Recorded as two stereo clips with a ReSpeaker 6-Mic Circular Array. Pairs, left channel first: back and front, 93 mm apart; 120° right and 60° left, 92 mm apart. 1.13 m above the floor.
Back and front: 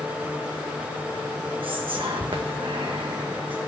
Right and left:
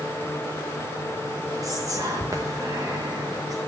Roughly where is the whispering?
Ahead.